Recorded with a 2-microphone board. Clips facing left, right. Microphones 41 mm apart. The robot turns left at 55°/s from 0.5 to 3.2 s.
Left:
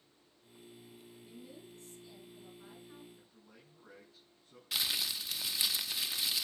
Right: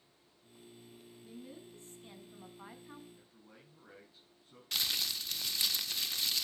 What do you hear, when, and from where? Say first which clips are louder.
1.2 s a woman speaking: right 3 dB; straight ahead, 5.5 m; by 3.0 s 100° right, 5.5 m
3.1 s a man speaking: right 1 dB; 10° right (ahead or behind), 6 m; by 4.6 s 15° right (ahead or behind), 6 m
4.7 s crumpling: even; 5° left (ahead or behind), 0.6 m